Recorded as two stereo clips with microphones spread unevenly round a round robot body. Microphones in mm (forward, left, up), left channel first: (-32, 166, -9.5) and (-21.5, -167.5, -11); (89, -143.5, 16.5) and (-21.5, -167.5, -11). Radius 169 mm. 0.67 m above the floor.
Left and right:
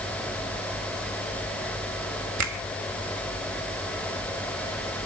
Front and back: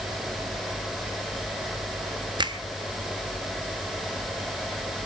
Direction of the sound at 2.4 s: 125° right.